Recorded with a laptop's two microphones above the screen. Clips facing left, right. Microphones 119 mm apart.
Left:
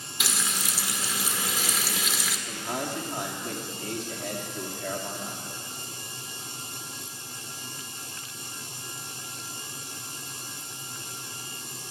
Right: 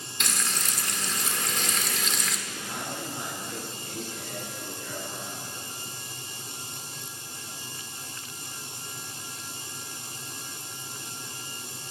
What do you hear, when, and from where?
0.2 s frying: 5° left (ahead or behind), 1.8 m
2.5 s a man speaking: 75° left (ahead or behind), 3 m